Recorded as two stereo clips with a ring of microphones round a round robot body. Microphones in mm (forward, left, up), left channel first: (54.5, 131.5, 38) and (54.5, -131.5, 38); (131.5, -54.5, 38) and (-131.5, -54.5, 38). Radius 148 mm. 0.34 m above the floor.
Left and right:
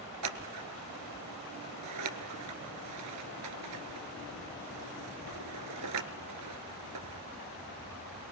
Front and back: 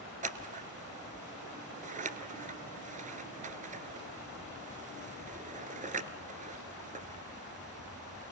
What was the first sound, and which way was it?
Scissors, 120° right.